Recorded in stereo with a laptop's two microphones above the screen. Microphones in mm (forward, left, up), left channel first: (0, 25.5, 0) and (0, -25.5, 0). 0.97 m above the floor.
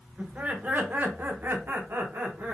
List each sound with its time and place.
0.2 s laughter: 30° right (ahead or behind), 1.1 m; by 2.5 s 40° right (ahead or behind), 1.0 m